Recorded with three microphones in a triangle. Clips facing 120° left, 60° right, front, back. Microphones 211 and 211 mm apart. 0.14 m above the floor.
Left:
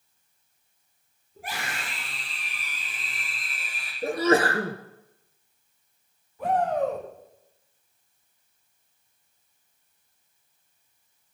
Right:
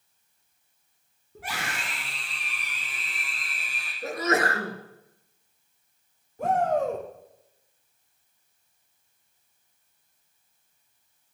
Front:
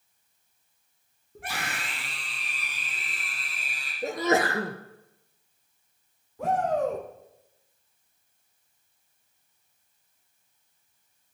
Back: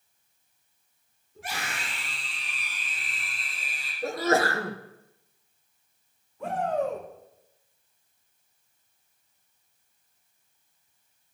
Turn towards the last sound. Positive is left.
turn(degrees=-15)